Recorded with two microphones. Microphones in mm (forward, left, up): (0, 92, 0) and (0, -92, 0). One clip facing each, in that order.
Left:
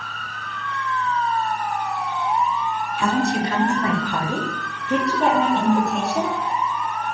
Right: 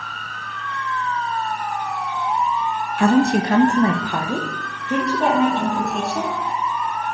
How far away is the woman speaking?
About 0.8 m.